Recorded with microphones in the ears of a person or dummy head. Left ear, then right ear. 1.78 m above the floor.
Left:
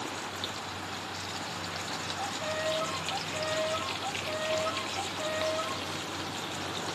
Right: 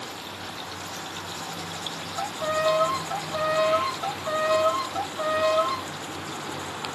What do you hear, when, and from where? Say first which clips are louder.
2.2 s a violin: right 10 dB; 70° right (ahead or behind), 0.7 m